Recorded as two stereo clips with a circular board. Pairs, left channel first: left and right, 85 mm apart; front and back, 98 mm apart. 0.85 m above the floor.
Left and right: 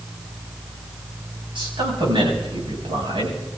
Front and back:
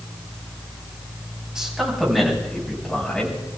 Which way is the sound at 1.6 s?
100° right.